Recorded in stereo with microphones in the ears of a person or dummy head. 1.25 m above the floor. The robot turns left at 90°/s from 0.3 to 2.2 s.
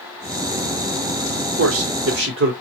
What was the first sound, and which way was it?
A man speaking, 65° right.